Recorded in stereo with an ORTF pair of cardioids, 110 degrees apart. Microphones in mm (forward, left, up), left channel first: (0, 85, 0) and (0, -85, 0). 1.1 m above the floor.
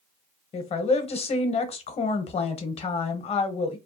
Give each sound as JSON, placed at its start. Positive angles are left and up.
{"t": 0.5, "sound": "a woman speaking", "azimuth_deg": 40, "distance_m": 0.7}